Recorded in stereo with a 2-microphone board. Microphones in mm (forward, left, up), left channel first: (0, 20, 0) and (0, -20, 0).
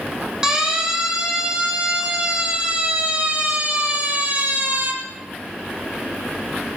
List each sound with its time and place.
0.4 s a siren: 15° right (ahead or behind), 7 m; by 4.9 s 45° right (ahead or behind), 5 m